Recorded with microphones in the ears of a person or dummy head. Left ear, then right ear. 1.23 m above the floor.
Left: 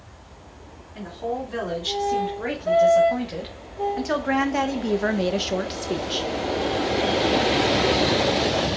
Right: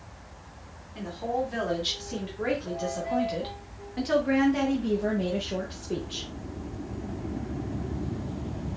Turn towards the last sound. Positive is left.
turn(degrees=50)  # may be behind; listen again after turning